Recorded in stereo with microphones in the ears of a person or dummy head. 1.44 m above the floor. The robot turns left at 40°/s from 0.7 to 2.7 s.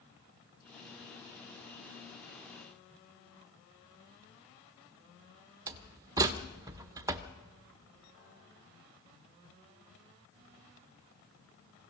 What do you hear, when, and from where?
5.7 s a door slam: 20° right (ahead or behind), 0.9 m